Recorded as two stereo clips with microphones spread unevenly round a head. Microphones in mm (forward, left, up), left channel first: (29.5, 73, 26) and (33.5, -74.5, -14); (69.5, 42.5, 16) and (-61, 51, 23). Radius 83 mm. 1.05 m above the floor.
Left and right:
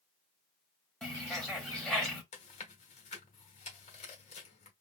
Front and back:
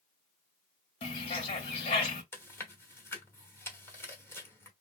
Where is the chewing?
70° left, 1.1 m.